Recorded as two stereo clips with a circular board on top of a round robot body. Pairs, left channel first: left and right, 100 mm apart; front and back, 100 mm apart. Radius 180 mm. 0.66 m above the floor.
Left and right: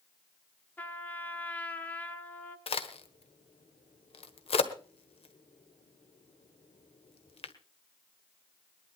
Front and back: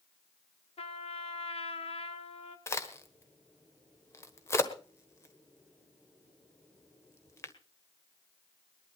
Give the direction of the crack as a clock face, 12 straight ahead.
10 o'clock.